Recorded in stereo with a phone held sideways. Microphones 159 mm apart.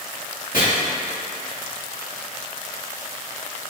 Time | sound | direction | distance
0.5 | chopping | 70° left (ahead or behind) | 1.8 m